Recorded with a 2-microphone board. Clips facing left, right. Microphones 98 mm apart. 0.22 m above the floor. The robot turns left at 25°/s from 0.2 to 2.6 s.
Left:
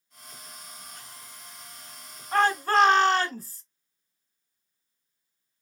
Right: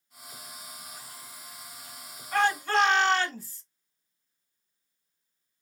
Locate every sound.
2.3 s a shout: 40° left (ahead or behind), 1.5 m; by 3.6 s 45° left (ahead or behind), 1.5 m